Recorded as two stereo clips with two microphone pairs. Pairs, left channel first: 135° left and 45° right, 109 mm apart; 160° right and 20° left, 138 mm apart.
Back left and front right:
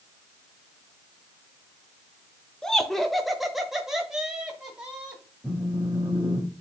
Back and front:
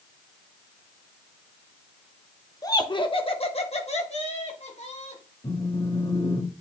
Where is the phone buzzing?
120° right, 1.9 m.